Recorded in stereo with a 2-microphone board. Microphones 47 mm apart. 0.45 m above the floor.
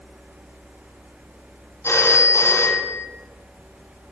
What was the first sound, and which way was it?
A phone ringing, 60° left (ahead or behind).